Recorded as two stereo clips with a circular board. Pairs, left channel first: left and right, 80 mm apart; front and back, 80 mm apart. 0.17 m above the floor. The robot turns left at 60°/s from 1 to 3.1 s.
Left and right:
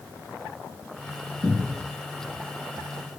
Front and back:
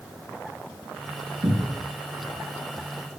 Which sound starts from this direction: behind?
A cupboard door, at 1.4 s.